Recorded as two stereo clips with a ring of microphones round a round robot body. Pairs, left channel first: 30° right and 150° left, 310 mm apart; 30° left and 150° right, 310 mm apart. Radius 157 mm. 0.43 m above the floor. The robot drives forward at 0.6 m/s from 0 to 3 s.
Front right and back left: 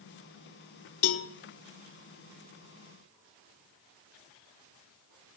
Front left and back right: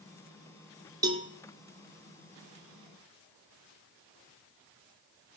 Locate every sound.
1.0 s a cowbell: 70° right, 0.6 m; by 1.3 s 90° right, 0.6 m